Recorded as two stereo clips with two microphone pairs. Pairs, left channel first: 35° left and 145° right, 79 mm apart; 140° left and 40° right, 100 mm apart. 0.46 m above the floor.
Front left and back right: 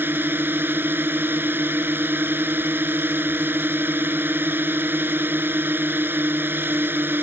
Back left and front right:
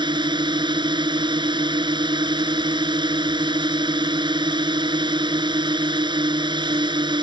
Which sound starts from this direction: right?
A drone, at 0.0 s.